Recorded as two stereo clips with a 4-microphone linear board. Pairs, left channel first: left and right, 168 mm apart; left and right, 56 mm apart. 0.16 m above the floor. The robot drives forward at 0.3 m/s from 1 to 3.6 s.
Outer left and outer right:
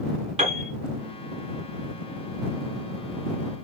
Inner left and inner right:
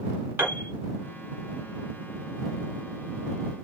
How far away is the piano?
About 1.7 m.